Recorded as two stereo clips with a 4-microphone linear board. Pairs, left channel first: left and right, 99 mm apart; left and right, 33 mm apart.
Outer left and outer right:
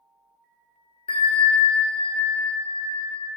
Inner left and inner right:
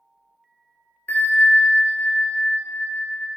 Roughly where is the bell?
Left.